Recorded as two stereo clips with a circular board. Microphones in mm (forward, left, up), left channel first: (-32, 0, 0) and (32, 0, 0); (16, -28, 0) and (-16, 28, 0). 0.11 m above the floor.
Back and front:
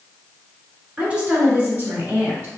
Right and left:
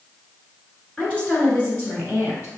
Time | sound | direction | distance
1.0 | a woman speaking | 15° right | 1.2 m